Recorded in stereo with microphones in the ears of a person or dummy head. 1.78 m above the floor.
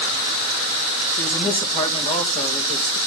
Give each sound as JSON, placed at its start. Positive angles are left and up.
{"t": 1.2, "sound": "a man speaking", "side_deg": 45, "distance_m": 3.0}